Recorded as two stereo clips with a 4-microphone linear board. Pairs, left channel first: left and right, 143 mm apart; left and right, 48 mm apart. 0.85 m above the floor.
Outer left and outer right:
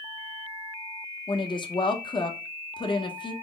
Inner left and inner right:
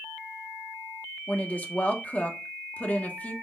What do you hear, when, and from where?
1.3 s a woman speaking: 30° left (ahead or behind), 0.7 m